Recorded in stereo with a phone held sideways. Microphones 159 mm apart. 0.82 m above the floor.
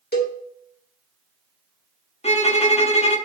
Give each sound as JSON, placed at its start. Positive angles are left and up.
{"t": 0.1, "sound": "a cowbell", "side_deg": 80, "distance_m": 1.5}
{"t": 2.2, "sound": "a violin", "side_deg": 40, "distance_m": 0.9}